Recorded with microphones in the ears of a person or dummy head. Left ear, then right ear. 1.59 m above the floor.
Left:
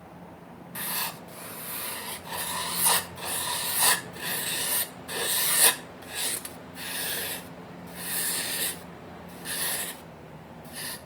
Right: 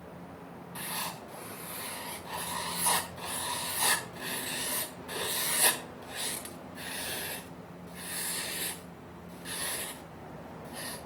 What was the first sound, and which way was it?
Writing, 20° left (ahead or behind).